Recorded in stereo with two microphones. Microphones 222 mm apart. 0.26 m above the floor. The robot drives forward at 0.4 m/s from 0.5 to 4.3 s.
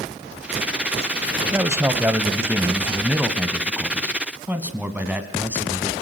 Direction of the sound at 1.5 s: 10° right (ahead or behind).